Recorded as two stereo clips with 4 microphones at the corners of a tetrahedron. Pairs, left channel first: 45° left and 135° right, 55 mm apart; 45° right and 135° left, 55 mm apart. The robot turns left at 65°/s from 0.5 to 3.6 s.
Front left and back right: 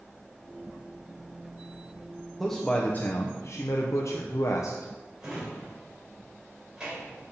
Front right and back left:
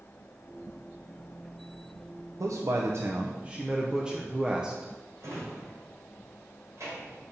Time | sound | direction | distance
2.4 | a man speaking | 140° left | 0.6 m
5.2 | a drawer | 150° left | 2.5 m